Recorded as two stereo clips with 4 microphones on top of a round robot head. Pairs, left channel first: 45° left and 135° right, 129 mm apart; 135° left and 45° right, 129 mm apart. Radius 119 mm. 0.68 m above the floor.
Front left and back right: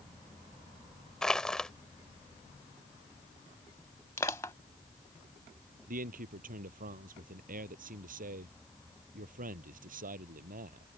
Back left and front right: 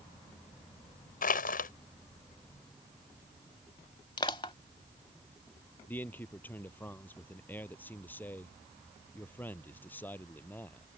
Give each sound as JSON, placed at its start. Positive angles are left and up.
{"t": 1.2, "sound": "crushing", "azimuth_deg": 130}
{"t": 4.2, "sound": "crushing", "azimuth_deg": 105}
{"t": 5.9, "sound": "a man speaking", "azimuth_deg": -150}